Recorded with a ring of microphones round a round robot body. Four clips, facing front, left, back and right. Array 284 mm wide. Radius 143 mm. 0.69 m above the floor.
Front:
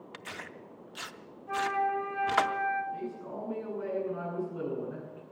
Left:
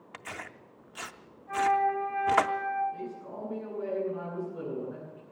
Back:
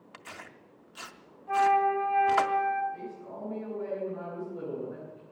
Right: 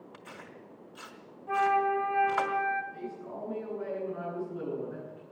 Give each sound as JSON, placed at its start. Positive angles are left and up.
{"t": 0.1, "sound": "tearing paper", "azimuth_deg": 80, "distance_m": 0.6}
{"t": 1.5, "sound": "a flute", "azimuth_deg": -80, "distance_m": 2.5}
{"t": 2.9, "sound": "a man speaking", "azimuth_deg": 0, "distance_m": 9.5}